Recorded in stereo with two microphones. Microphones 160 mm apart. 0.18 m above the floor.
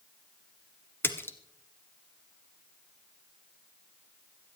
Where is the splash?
15° left (ahead or behind), 1.2 m.